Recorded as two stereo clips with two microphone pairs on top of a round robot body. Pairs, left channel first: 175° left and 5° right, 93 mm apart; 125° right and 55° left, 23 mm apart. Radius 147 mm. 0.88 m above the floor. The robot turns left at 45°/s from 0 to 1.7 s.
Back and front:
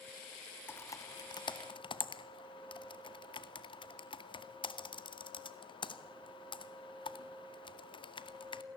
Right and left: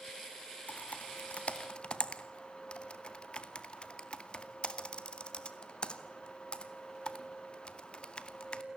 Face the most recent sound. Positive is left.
turn(degrees=-170)